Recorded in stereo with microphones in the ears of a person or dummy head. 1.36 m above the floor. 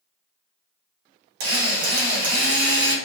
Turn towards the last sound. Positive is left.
turn(degrees=-60)  # may be behind; listen again after turning